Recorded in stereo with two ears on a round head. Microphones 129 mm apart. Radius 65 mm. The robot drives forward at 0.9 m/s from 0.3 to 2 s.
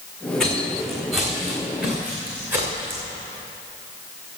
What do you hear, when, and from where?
0.4 s footsteps: 5° left (ahead or behind), 5 m; by 3.0 s 20° right (ahead or behind), 5 m